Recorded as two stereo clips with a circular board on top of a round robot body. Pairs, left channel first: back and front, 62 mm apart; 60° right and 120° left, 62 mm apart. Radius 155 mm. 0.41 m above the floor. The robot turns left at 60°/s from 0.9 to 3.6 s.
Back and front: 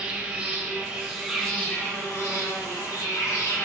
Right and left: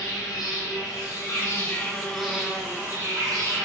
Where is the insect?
65° right, 1.3 m; by 3.7 s 130° left, 1.3 m.